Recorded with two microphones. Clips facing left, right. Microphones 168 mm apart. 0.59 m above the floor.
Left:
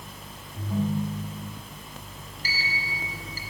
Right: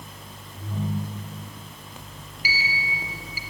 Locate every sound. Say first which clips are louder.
0.6 s a ringtone: left 3 dB; 20° left (ahead or behind), 9 m
2.4 s a sliding door: right 3 dB; 10° right (ahead or behind), 2 m